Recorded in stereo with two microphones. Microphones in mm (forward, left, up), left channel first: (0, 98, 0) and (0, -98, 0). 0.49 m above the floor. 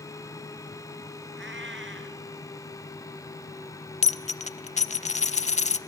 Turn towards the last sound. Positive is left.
turn(degrees=35)  # may be behind; listen again after turning